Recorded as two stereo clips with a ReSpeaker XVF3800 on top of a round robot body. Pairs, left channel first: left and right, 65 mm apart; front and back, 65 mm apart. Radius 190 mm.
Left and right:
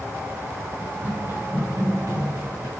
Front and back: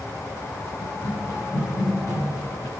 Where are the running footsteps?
25° right, 4 m; by 2.7 s 40° right, 4 m.